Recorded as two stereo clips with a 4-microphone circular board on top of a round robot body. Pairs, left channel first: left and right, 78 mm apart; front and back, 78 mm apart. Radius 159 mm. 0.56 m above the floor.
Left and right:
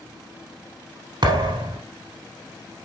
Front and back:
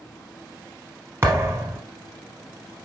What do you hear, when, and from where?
1.2 s a thud: 120° right, 0.6 m